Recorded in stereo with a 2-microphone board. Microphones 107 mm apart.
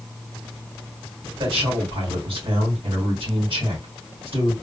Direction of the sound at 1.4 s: 55° right (ahead or behind).